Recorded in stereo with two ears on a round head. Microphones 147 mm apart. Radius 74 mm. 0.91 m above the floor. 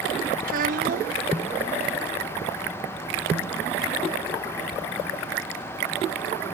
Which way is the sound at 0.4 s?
50° right (ahead or behind).